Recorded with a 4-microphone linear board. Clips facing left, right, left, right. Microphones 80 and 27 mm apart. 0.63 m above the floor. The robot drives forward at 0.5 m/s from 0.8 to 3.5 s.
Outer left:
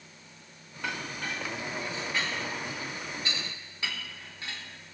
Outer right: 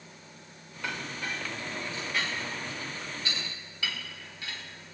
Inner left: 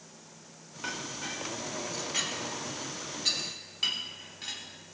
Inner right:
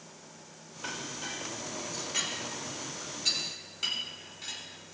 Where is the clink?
25° left (ahead or behind), 5.5 m; by 4.6 s 30° left (ahead or behind), 4 m.